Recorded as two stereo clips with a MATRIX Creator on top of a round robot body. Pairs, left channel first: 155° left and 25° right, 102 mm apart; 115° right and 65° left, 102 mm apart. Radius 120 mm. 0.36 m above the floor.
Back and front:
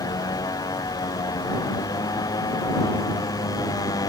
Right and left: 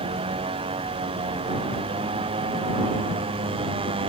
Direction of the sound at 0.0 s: 100° left.